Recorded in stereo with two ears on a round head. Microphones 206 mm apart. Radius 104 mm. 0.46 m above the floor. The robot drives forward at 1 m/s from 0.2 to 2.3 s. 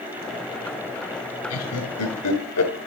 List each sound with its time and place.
1.5 s laughter: 70° left (ahead or behind), 6 m; by 2.7 s 75° left (ahead or behind), 6 m